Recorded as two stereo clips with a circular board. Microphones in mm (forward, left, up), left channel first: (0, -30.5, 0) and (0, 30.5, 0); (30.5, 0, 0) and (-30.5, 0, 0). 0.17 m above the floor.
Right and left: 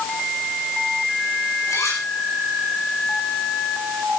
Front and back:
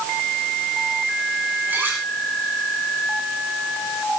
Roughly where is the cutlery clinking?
Behind right.